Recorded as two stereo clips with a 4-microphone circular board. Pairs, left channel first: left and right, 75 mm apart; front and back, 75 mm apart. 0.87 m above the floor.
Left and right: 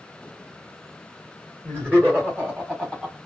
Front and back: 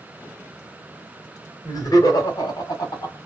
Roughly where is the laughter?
Ahead right.